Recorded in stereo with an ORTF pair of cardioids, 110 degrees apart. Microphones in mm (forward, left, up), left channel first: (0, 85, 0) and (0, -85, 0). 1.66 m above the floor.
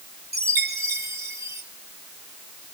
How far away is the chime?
About 1.6 m.